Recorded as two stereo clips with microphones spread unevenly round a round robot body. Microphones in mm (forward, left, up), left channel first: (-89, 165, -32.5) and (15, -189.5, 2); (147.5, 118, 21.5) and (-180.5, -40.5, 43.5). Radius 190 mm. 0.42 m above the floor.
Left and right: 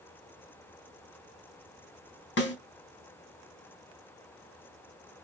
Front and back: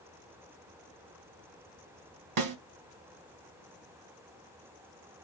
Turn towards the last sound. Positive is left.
turn(degrees=165)